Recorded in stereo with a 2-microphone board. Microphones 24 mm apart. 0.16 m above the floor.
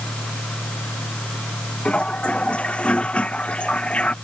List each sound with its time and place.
1.9 s a toilet flushing: 60° left (ahead or behind)